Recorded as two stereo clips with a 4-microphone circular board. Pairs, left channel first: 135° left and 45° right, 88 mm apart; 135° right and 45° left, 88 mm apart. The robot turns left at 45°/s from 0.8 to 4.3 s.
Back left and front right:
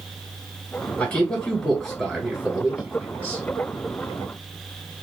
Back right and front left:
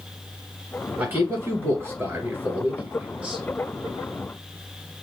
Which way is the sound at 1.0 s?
90° left.